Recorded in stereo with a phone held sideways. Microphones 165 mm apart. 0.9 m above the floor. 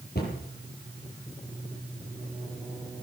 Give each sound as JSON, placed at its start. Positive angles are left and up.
{"t": 0.1, "sound": "a cupboard door", "side_deg": 60, "distance_m": 8.0}